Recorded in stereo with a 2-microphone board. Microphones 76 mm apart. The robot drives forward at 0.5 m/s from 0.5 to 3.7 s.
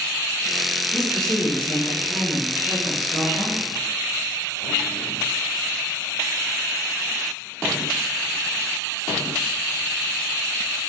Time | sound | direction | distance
0.9 | a woman speaking | 15° left (ahead or behind) | 1.4 m